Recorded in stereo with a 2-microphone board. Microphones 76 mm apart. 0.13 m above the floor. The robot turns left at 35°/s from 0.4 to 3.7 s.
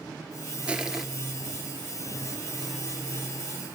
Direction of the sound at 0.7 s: 15° right (ahead or behind).